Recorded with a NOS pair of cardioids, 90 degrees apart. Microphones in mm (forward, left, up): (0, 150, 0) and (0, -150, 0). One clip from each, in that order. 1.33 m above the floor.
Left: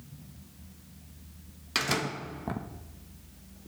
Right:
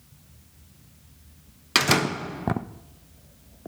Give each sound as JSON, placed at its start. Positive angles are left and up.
{"t": 1.8, "sound": "a door slam", "azimuth_deg": -50, "distance_m": 0.9}